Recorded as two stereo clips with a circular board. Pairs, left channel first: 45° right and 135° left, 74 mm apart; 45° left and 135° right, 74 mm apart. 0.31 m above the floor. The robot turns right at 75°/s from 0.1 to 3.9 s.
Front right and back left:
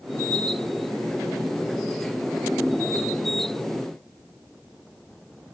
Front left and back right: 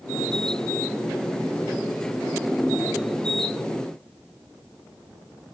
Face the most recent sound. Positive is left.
No sound to turn to.